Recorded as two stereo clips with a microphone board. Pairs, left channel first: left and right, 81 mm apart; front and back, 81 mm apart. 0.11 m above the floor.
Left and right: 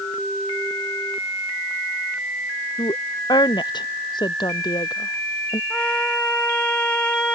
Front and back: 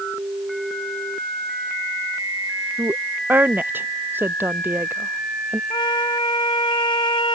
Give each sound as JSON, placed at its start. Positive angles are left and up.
{"t": 2.8, "sound": "a woman speaking", "azimuth_deg": 115}
{"t": 5.7, "sound": "a trumpet", "azimuth_deg": 15}